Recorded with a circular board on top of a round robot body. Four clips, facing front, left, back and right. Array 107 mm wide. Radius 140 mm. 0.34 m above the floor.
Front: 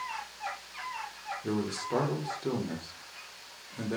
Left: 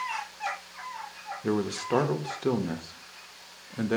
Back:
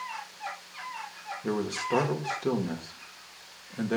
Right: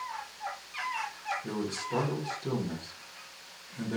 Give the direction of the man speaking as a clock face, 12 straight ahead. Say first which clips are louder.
Left 6 dB, back 3 dB; 8 o'clock.